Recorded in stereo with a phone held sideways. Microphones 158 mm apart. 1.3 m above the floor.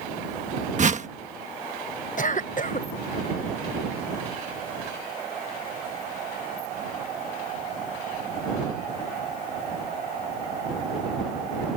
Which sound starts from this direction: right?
A whoosh, at 0.8 s.